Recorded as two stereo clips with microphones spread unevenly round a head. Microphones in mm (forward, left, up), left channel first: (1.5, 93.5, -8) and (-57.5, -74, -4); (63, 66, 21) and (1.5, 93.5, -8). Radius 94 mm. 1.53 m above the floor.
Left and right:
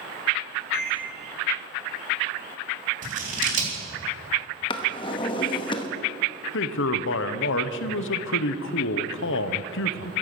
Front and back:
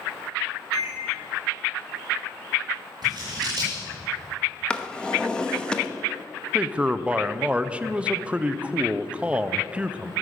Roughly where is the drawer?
Ahead.